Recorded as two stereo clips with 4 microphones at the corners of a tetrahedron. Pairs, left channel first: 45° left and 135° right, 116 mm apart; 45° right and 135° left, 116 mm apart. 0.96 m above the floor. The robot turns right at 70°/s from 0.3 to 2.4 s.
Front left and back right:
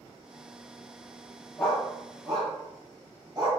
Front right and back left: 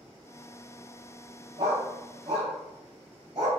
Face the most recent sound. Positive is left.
turn(degrees=175)